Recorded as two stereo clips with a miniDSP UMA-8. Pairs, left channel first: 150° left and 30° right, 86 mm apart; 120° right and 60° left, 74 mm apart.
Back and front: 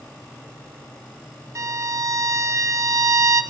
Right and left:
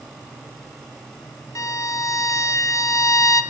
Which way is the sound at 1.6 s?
80° right.